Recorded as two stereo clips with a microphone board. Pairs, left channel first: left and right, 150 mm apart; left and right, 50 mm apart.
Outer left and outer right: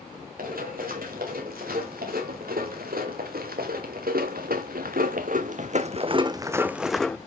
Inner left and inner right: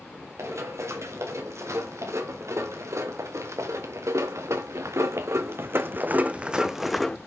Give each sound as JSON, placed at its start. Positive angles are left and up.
{"t": 0.4, "sound": "running footsteps", "side_deg": -75, "distance_m": 4.0}